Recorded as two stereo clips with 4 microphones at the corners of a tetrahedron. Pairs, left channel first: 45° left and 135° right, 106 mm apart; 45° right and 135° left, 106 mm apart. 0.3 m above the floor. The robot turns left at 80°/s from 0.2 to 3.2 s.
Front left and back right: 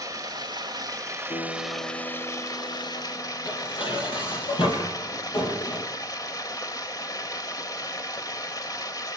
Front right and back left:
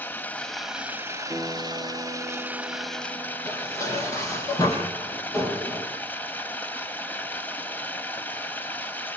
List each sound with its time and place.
0.0 s running water: 105° right, 1.5 m; by 9.2 s 15° left, 1.5 m
1.3 s a guitar: 70° left, 5.5 m; by 4.5 s 80° right, 5.5 m
3.5 s dishes clattering: 10° left, 7 m